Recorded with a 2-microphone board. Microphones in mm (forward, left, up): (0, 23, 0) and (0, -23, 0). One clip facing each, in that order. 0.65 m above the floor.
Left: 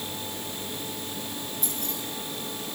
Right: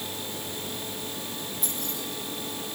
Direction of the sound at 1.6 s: Centre (ahead or behind).